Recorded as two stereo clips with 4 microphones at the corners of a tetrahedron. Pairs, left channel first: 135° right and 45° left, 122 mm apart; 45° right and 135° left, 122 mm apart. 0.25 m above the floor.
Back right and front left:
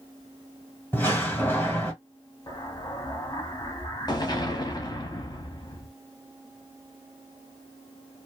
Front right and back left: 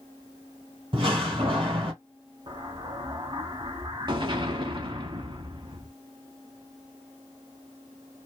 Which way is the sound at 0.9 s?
155° left.